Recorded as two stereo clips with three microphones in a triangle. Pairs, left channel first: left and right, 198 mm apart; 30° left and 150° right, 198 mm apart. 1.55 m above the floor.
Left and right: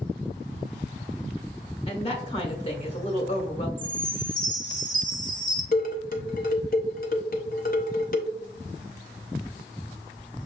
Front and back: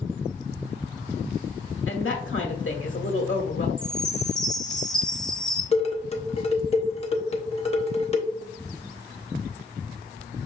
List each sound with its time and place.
1.9 s a woman speaking: 30° left, 1.2 m
3.8 s a chime: 110° left, 1.2 m
5.7 s dishes clattering: 75° left, 0.7 m